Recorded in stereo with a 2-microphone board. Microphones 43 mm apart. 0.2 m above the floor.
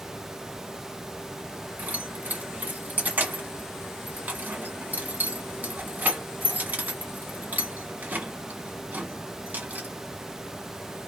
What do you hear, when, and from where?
1.8 s keys jangling: 40° right (ahead or behind), 1.2 m